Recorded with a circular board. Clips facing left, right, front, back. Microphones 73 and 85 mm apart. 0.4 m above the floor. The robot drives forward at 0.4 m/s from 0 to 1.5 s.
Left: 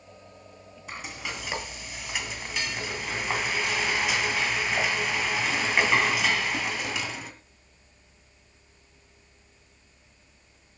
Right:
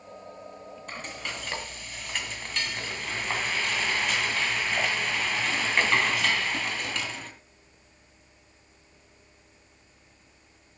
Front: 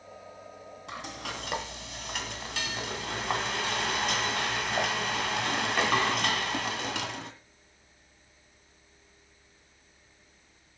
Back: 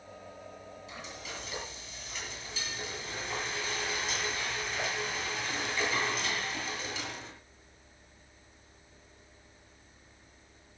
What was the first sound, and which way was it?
Frying, 10° left.